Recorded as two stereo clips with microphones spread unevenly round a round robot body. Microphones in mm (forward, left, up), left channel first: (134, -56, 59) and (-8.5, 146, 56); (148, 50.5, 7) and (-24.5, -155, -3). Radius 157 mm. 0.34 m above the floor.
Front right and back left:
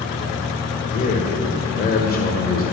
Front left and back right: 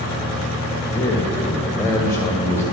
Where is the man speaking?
25° right, 1.6 m.